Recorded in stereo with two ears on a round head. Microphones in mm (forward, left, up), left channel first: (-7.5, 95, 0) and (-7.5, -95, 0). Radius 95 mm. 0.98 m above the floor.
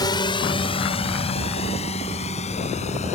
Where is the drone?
20° left (ahead or behind); by 3.1 s 30° left (ahead or behind).